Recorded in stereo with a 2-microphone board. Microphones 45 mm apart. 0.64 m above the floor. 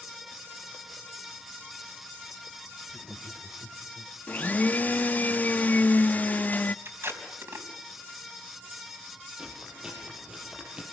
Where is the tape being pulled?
65° right (ahead or behind), 4 m.